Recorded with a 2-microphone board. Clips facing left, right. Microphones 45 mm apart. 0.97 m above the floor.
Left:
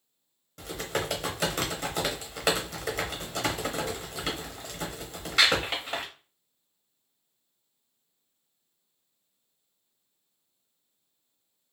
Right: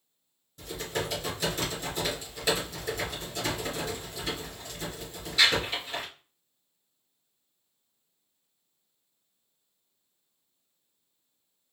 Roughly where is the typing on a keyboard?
Left.